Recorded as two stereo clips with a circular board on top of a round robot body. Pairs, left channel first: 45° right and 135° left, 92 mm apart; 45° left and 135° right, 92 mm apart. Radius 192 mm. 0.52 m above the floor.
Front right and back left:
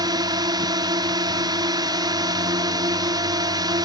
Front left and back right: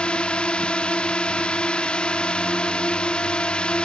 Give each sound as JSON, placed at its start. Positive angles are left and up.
{"t": 0.0, "sound": "a drone", "azimuth_deg": 120}